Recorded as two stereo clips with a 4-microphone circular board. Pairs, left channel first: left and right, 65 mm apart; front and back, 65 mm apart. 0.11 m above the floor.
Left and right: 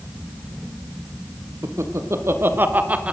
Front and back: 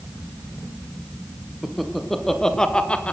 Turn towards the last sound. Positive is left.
turn(degrees=-40)